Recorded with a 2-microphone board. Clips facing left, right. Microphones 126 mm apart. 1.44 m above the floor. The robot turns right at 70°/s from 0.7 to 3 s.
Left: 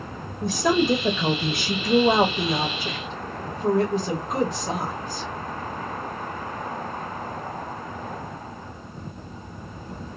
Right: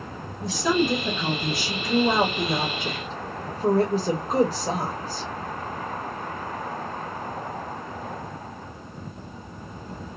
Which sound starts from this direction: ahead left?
A woman speaking, at 0.4 s.